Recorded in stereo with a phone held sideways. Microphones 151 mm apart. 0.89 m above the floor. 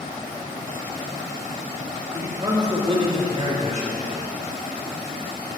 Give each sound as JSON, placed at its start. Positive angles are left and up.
{"t": 2.1, "sound": "a man speaking", "side_deg": -20, "distance_m": 3.5}